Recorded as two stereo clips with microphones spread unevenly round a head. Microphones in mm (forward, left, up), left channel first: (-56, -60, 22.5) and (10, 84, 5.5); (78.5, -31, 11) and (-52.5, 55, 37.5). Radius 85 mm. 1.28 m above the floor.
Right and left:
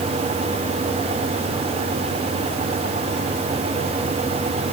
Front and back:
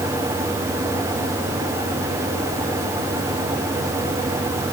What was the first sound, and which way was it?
Only background noise.